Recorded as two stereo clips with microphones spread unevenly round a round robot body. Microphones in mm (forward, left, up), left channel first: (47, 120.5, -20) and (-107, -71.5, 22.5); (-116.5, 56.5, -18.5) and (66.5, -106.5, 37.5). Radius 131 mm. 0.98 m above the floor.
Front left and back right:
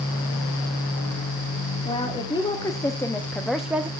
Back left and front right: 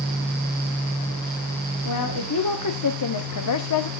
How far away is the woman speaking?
About 2 m.